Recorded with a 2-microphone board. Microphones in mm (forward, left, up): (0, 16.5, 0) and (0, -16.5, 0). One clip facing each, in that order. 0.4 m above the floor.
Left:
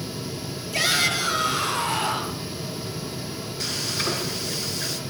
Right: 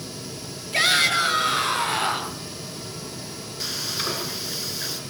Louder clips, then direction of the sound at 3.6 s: Left 1 dB; centre (ahead or behind).